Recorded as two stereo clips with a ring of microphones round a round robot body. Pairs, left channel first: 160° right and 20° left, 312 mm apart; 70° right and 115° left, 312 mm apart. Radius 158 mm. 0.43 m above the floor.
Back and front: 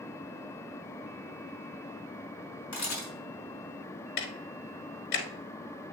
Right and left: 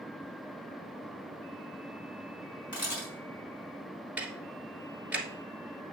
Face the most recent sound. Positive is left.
turn(degrees=-160)